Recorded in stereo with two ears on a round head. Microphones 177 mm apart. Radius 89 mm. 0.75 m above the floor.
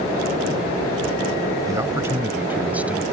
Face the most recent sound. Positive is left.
turn(degrees=-5)  # may be behind; listen again after turning